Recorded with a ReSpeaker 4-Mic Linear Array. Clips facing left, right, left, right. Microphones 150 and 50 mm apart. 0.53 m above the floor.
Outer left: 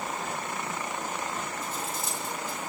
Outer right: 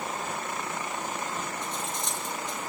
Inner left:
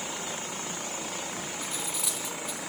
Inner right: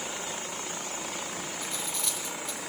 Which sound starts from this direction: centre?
Cutlery clinking, at 1.6 s.